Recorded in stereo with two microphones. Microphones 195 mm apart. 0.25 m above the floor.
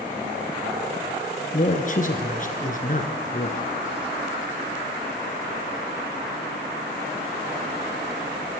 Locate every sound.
1.5 s a man speaking: 45° left (ahead or behind), 3 m